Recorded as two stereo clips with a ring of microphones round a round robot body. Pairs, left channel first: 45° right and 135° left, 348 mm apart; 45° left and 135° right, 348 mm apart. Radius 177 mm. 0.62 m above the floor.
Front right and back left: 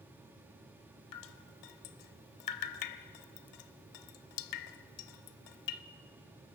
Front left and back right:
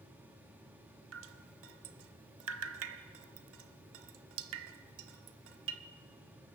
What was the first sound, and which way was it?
Dripping, 80° right.